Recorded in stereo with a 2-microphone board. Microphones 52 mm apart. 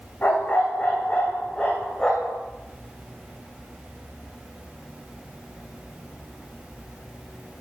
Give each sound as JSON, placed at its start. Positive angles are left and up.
{"t": 0.2, "sound": "a dog barking", "side_deg": 35, "distance_m": 4.5}